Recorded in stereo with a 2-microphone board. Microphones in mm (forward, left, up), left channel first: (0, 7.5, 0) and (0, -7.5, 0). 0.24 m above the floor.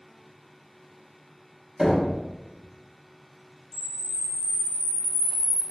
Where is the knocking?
40° right (ahead or behind), 1.0 m.